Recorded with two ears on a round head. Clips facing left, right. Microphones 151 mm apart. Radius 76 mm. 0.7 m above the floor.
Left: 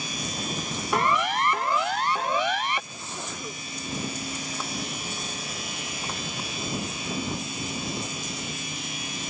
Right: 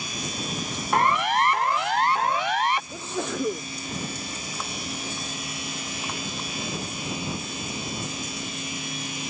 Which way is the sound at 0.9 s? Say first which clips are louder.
Right 2 dB; 80° left.